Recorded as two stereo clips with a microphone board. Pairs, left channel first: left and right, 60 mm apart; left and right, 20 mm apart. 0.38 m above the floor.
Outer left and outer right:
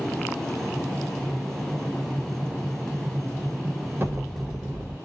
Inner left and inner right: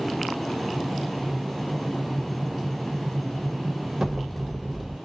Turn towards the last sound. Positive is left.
turn(degrees=-30)  # may be behind; listen again after turning